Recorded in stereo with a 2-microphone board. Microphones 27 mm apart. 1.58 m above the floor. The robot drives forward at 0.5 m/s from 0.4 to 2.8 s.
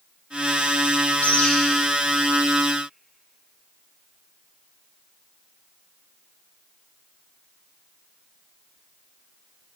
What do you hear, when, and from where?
1.2 s a bird: 65° left (ahead or behind), 0.9 m; by 1.5 s 55° left (ahead or behind), 1.0 m